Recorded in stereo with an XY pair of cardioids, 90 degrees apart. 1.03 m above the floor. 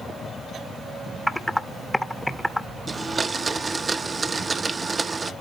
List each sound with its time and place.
1.3 s typing on a keyboard: 5° left, 0.7 m
2.9 s a blender: 35° right, 0.6 m